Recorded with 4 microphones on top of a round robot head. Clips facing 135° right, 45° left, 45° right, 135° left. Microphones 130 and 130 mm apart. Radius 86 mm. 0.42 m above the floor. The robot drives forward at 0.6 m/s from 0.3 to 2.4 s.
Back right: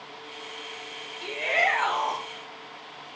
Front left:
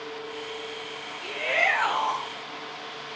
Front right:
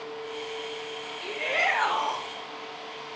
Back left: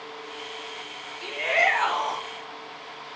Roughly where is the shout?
Behind.